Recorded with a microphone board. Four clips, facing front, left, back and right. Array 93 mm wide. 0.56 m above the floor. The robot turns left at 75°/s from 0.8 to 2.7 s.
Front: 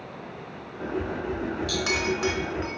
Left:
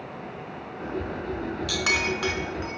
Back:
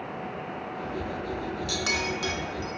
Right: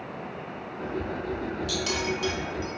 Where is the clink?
95° left, 1.2 m; by 2.8 s 20° left, 1.2 m.